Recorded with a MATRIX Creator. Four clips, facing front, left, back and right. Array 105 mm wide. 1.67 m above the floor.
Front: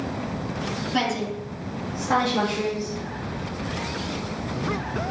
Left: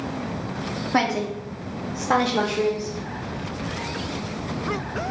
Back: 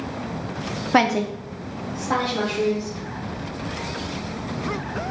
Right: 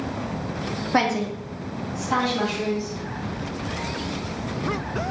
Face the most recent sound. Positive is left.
turn(degrees=60)